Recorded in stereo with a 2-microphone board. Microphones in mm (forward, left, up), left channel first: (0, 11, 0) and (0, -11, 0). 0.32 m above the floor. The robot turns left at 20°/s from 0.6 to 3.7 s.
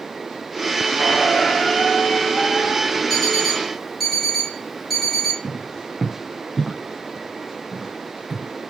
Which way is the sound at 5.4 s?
5° right (ahead or behind).